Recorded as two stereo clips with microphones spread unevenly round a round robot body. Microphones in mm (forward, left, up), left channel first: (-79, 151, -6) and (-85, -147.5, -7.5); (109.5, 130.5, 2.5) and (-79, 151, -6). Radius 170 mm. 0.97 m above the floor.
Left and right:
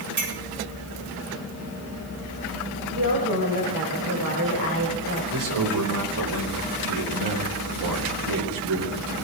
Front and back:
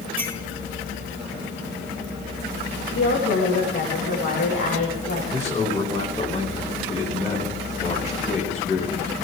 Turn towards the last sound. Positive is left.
turn(degrees=-85)